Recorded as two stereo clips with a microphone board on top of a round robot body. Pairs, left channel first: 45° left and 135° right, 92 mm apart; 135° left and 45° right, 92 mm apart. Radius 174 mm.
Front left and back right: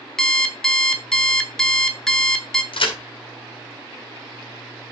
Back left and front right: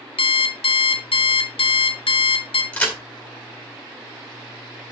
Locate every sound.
0.2 s an alarm clock: 130° left, 1.6 m
2.7 s a crack: 60° left, 4 m